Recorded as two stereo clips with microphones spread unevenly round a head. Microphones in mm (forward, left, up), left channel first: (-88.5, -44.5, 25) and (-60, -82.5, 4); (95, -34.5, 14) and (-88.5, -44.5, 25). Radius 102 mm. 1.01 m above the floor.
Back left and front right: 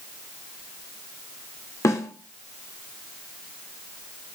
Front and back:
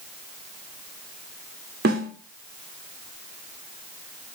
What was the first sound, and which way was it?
A snare drum, 135° left.